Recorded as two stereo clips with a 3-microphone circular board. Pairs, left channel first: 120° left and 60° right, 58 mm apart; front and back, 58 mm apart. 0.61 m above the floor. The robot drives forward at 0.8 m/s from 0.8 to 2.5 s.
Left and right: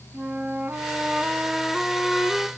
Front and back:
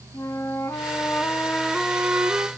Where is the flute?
Straight ahead, 0.9 m; by 2.5 s straight behind, 0.8 m.